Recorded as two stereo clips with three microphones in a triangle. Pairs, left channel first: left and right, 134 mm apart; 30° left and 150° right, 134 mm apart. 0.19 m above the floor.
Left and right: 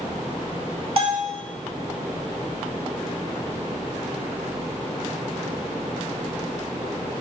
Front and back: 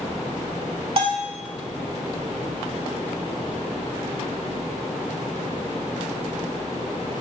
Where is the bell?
115° right, 0.7 m.